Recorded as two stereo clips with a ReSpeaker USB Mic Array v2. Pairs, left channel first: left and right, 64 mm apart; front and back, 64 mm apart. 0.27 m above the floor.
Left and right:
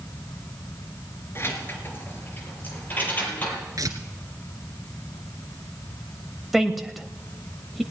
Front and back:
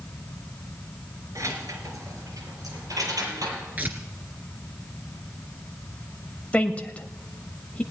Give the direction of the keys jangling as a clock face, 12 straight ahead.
7 o'clock.